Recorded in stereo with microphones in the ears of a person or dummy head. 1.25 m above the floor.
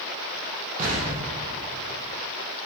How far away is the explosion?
About 1.0 m.